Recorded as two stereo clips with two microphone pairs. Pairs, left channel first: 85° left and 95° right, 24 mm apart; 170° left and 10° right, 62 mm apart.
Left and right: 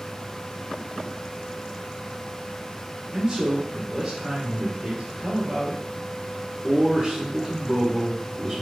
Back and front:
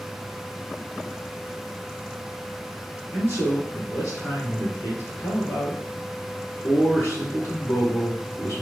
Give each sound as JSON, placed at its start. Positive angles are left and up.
{"t": 3.1, "sound": "a man speaking", "azimuth_deg": -150, "distance_m": 2.0}